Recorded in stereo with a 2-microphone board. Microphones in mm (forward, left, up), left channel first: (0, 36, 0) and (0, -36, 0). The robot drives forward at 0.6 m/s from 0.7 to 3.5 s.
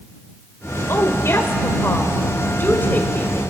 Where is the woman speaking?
40° left (ahead or behind), 1.9 m; by 3.4 s 25° left (ahead or behind), 3 m.